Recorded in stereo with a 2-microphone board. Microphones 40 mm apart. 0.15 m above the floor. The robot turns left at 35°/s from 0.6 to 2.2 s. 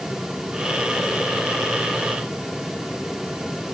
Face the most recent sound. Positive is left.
No sound to turn to.